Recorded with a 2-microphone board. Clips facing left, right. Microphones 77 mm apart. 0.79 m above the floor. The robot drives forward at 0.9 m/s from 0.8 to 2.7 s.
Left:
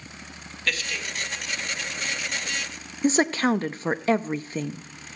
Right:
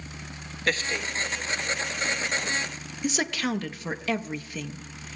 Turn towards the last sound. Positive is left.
turn(degrees=35)  # may be behind; listen again after turning